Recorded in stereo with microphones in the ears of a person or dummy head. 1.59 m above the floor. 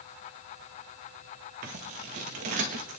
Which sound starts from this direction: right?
Scissors, at 1.6 s.